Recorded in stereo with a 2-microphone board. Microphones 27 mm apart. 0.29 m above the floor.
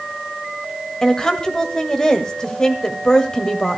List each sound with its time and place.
1.0 s a woman speaking: 25° left (ahead or behind), 1.5 m